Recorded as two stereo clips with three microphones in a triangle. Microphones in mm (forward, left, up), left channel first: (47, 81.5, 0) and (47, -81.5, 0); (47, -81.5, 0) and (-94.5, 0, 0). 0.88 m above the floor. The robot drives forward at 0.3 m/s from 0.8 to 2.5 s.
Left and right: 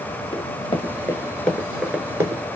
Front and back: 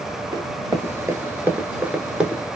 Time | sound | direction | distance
0.3 | running footsteps | 110° left | 1.0 m